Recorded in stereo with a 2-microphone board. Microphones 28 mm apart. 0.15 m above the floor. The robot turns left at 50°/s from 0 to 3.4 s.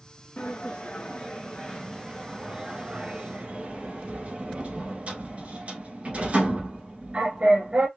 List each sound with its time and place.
0.4 s a sliding door: 55° left (ahead or behind), 1.3 m; by 7.9 s 50° right (ahead or behind), 1.3 m